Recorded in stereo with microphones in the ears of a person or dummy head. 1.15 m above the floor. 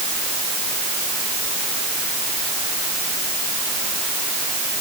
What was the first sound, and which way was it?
Only background noise.